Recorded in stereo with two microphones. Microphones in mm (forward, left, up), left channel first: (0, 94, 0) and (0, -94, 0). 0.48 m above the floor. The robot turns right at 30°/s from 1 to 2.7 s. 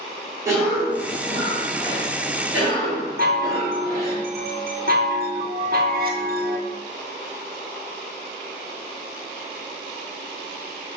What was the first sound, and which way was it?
A cough, 15° right (ahead or behind).